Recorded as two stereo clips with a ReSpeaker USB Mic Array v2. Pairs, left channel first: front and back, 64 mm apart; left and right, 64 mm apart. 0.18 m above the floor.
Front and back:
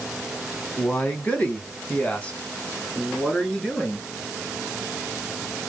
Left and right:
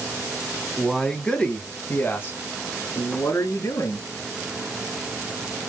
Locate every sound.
0.8 s a man speaking: 5° right, 1.2 m; by 4.1 s 70° left, 2.5 m